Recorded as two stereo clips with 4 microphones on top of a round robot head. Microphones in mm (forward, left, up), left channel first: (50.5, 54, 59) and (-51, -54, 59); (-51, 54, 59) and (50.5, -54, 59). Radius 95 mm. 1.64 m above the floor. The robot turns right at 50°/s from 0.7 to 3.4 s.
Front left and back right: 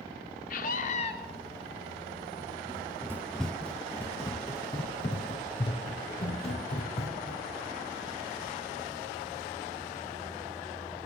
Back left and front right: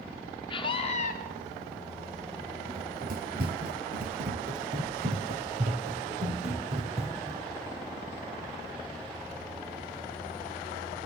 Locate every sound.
0.5 s a scream: 75° left, 2.5 m; by 1.1 s 100° left, 2.5 m
2.7 s running footsteps: 90° right, 2.5 m; by 7.4 s straight ahead, 4 m